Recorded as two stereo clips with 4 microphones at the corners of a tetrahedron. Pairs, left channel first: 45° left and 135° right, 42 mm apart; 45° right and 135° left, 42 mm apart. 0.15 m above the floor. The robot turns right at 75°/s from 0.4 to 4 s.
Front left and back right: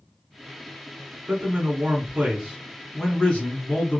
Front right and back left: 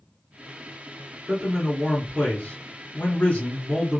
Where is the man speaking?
155° right, 2 m; by 4.0 s 45° left, 2 m.